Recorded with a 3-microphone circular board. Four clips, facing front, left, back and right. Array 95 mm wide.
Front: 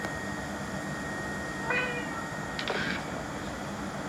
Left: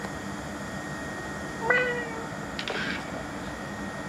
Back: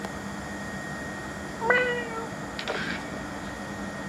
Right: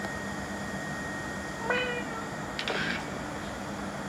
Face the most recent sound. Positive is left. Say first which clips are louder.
# left 5 dB, back 9 dB
turn(degrees=165)